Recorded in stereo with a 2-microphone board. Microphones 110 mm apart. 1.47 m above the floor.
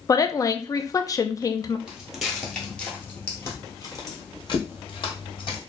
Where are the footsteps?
5° right (ahead or behind), 1.7 m; by 5.6 s 45° left (ahead or behind), 2.5 m.